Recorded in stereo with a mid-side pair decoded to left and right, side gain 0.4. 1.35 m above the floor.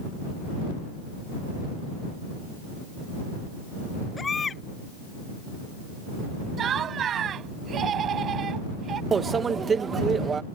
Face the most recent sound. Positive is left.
turn(degrees=-45)